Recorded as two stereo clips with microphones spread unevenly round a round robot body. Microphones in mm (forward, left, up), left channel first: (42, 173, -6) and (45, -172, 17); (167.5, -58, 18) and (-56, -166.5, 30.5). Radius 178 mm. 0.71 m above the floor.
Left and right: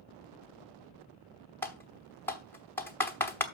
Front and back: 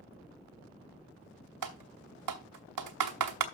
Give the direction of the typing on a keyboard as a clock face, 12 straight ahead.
6 o'clock.